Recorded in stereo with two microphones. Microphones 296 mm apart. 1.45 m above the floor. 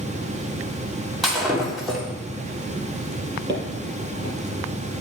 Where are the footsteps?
15° left (ahead or behind), 2.0 m.